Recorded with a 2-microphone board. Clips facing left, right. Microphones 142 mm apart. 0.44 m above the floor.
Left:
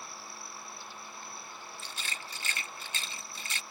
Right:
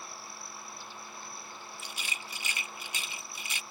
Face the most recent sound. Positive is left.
turn(degrees=-15)  # may be behind; listen again after turning